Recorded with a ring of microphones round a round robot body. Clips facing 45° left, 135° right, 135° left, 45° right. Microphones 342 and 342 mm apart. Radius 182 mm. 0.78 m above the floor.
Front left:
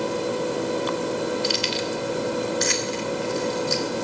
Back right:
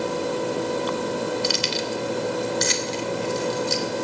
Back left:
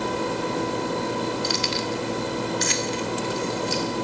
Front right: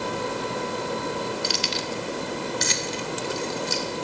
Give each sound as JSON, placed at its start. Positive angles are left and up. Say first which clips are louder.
{"t": 1.4, "sound": "keys jangling", "louder": "even, back left 3 dB", "azimuth_deg": -100, "distance_m": 1.2}